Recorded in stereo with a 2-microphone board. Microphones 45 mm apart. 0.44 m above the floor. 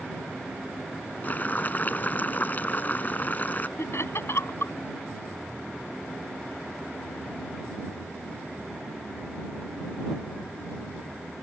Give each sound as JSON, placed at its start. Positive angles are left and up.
{"t": 1.2, "sound": "boiling", "side_deg": 40}
{"t": 3.8, "sound": "laughter", "side_deg": 65}